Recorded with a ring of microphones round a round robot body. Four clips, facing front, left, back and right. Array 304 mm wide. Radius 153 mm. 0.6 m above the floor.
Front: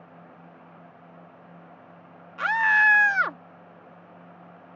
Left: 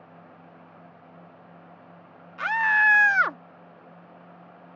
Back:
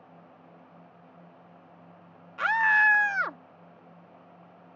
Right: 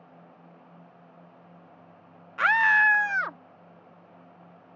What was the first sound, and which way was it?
A scream, 90° right.